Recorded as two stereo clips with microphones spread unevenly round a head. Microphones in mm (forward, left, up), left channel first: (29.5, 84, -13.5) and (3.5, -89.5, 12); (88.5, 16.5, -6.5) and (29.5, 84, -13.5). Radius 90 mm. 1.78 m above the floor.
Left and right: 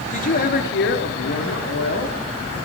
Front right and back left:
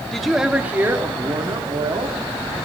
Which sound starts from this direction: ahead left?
A woman speaking, at 0.1 s.